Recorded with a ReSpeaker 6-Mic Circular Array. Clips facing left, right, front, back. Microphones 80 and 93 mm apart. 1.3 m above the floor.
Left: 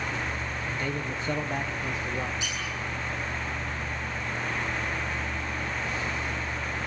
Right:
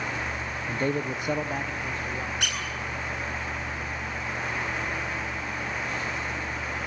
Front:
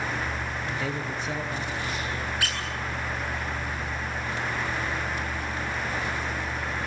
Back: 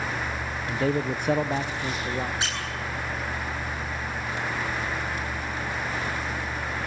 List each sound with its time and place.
0.7 s a man speaking: 130° right, 0.8 m; by 2.3 s 165° left, 1.5 m
2.4 s a squeak: 115° right, 9 m